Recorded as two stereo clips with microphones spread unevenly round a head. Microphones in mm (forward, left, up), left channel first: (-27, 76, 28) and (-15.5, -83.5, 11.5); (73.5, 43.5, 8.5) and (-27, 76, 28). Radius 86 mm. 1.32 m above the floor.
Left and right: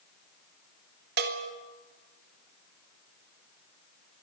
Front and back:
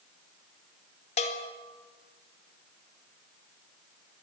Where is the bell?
55° right, 2 m.